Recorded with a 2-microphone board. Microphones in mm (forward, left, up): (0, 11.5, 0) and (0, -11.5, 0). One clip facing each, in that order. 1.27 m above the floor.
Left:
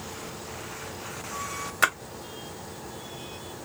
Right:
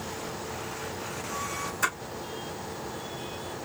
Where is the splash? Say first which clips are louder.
Left 6 dB; 65° left (ahead or behind), 1.7 m.